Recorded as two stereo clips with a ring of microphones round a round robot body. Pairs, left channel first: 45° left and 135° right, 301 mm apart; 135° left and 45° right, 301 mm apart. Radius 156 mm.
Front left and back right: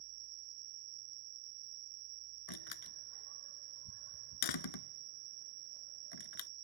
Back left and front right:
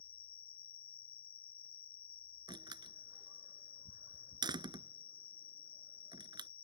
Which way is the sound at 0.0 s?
165° right.